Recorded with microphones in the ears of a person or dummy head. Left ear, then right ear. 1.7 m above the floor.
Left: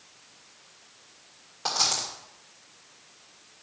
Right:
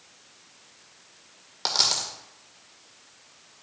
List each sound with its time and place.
1.6 s a dropped coin: 25° right (ahead or behind), 2 m